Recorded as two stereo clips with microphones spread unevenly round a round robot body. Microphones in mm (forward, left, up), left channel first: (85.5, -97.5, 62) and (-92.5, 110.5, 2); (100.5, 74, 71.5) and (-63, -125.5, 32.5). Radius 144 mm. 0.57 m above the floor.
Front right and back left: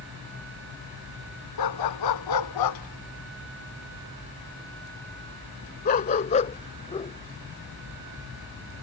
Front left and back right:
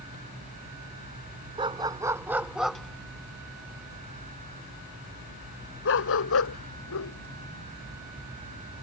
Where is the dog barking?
55° right; by 8.8 s 30° left.